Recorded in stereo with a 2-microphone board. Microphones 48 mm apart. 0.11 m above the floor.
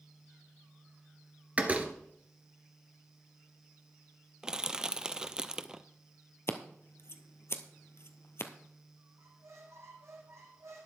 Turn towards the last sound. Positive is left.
turn(degrees=-80)